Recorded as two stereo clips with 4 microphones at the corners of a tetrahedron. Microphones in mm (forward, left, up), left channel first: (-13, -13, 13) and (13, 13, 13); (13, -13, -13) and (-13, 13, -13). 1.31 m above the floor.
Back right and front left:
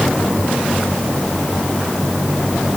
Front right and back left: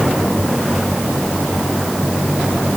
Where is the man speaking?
No man speaking in this recording.